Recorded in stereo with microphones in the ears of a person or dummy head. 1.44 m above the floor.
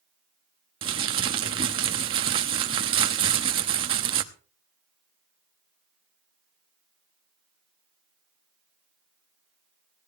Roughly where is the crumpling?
Right.